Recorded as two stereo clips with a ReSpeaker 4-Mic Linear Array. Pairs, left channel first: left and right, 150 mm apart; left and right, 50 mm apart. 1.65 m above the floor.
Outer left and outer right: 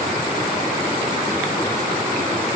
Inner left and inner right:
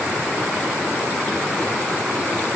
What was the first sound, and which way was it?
Only background noise.